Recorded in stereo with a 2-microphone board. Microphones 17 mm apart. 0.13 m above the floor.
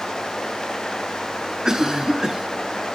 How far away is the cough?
About 1.5 m.